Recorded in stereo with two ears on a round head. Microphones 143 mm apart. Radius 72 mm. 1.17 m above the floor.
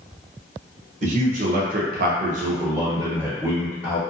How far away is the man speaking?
About 0.9 m.